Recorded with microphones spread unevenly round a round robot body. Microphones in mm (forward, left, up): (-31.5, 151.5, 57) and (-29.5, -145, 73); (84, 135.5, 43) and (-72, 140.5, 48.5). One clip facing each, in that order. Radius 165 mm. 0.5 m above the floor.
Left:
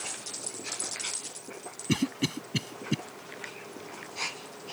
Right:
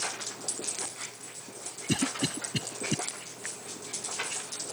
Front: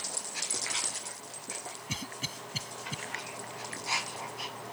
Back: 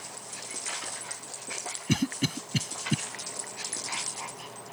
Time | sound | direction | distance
1.9 | a cough | 165° left | ?